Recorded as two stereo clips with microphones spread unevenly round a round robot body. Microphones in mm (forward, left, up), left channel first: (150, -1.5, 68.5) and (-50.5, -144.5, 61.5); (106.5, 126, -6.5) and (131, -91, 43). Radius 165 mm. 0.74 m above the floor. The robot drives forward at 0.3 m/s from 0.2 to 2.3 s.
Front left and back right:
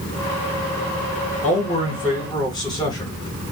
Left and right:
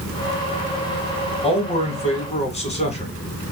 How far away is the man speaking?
About 1.3 m.